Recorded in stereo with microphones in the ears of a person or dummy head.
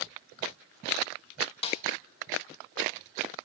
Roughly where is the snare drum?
Left.